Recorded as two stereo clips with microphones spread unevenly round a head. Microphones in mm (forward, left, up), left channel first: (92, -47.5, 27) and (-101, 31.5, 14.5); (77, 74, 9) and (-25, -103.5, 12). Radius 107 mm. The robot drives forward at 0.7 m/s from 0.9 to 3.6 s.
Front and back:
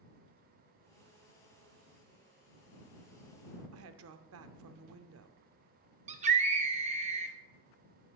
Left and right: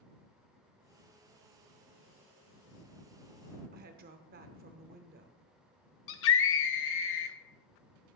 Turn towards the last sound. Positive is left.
turn(degrees=95)